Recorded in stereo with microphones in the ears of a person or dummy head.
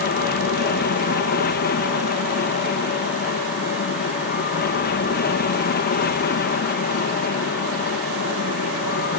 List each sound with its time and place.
0.0 s an aircraft: 45° left (ahead or behind)